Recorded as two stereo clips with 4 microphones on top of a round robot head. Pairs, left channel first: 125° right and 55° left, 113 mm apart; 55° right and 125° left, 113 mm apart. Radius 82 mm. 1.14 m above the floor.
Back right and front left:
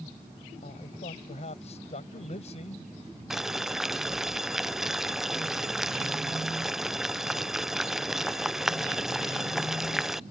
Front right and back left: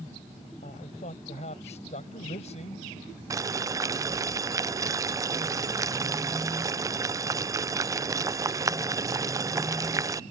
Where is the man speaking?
90° right.